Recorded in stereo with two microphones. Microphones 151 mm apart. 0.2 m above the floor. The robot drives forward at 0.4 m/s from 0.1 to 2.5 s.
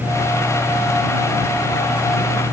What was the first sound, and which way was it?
Only background noise.